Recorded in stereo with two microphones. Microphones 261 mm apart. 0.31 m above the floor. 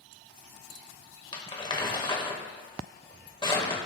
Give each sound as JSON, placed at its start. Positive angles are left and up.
{"t": 1.3, "sound": "crumpling", "side_deg": 20, "distance_m": 1.4}